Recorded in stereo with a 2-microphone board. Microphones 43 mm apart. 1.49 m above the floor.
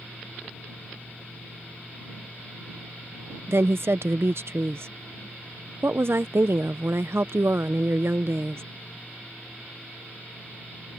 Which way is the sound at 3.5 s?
65° right (ahead or behind).